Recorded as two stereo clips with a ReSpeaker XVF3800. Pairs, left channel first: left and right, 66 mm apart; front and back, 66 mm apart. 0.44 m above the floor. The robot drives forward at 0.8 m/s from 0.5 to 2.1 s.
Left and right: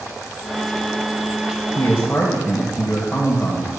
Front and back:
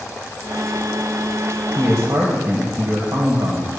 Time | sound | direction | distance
1.8 | a man speaking | 155° left | 1.6 m